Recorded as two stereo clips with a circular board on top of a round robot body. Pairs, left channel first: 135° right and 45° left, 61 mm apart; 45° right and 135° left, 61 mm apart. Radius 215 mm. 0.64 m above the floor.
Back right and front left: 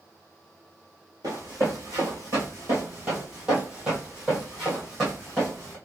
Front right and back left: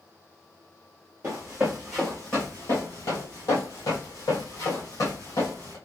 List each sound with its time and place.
1.2 s running footsteps: 80° left, 0.9 m; by 5.8 s 45° right, 2 m